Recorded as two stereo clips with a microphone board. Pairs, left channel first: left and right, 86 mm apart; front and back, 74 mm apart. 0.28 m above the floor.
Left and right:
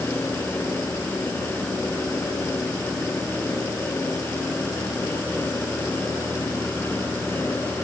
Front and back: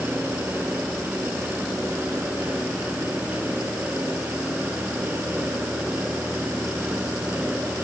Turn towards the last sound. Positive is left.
No sound to turn to.